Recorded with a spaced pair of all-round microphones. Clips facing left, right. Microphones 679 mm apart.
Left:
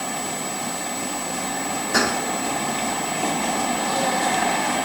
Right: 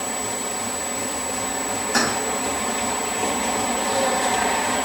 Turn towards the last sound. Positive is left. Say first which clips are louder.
# left 1 dB
turn(degrees=80)